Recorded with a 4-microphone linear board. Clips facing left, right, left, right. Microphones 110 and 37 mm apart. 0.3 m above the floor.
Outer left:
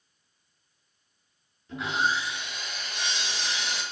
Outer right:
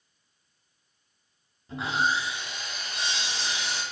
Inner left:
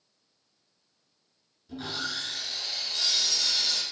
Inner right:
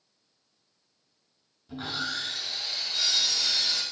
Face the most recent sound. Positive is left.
turn(degrees=-30)  # may be behind; listen again after turning